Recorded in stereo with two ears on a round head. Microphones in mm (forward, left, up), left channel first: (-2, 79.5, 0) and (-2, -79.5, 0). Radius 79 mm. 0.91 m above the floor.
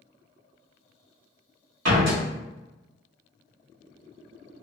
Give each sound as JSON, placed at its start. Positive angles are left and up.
{"t": 1.9, "sound": "a door slam", "side_deg": -65, "distance_m": 1.1}